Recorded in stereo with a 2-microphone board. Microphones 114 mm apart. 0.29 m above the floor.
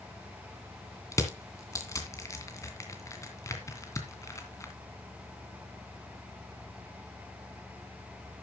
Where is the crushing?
25° left (ahead or behind), 2.5 m.